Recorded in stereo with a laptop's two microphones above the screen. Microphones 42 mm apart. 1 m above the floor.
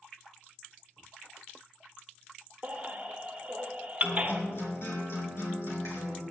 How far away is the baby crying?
About 1.1 m.